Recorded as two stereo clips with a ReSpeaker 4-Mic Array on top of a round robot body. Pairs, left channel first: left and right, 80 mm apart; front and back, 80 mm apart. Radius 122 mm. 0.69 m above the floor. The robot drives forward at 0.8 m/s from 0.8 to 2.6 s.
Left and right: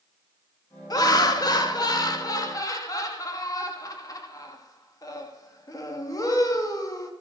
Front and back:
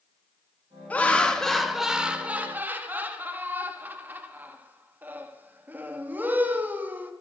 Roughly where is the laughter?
Left.